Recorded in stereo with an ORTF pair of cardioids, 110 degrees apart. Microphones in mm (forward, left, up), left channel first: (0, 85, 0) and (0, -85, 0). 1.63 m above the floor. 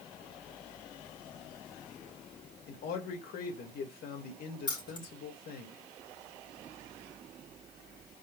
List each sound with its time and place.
2.7 s a man speaking: 60° left, 2.5 m
4.7 s keys jangling: 25° left, 4 m